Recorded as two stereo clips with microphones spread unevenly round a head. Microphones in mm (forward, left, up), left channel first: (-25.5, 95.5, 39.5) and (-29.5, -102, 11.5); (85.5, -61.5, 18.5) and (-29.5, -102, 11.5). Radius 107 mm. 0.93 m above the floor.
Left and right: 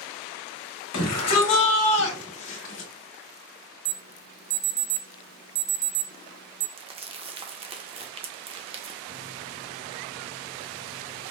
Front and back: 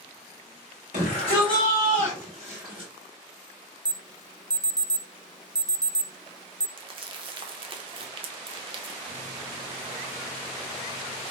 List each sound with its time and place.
0.9 s a shout: 75° left, 1.5 m; by 2.9 s 120° left, 1.7 m
3.9 s an alarm: 110° right, 0.6 m
6.8 s crumpling: 150° right, 0.6 m
9.1 s a microwave: 105° right, 1.5 m